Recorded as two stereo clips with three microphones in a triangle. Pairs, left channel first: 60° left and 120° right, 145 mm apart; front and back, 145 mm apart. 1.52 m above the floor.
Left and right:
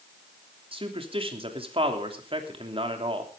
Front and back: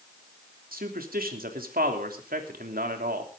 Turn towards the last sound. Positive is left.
turn(degrees=-170)